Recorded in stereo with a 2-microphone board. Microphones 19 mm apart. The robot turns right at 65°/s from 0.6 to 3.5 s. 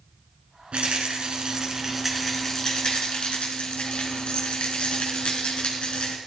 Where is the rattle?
90° right, 3.5 m; by 6.2 s 95° left, 3.5 m.